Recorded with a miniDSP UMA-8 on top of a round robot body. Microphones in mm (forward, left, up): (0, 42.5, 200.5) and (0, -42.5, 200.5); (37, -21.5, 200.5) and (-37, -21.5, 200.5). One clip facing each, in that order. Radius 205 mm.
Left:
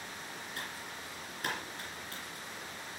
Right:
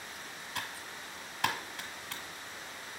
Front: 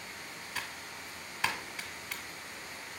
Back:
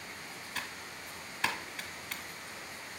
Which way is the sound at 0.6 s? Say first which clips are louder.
Right 4 dB, even; 85° right.